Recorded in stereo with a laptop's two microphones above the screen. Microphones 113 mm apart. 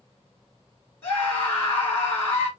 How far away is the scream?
About 2 m.